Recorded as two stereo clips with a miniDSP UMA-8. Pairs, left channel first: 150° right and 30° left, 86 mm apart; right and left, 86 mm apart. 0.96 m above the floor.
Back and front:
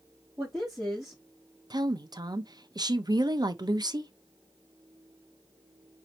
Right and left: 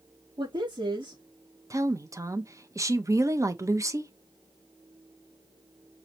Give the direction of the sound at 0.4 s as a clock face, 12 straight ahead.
8 o'clock.